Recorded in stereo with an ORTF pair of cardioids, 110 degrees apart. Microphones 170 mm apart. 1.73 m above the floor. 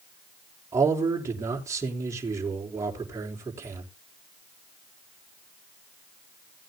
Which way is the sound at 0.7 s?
20° right.